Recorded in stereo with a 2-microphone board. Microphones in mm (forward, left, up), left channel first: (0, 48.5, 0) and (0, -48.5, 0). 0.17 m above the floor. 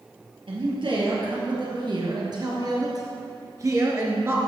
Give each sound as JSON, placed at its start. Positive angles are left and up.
{"t": 0.5, "sound": "a man speaking", "side_deg": -60, "distance_m": 3.5}